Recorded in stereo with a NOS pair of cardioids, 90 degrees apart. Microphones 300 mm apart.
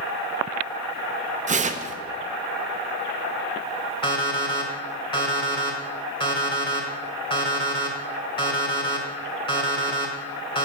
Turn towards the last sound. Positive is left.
turn(degrees=15)